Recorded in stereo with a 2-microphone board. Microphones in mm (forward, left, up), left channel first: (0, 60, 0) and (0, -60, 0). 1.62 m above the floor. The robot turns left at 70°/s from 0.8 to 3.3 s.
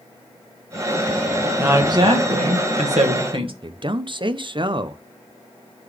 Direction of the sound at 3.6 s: 45° right (ahead or behind).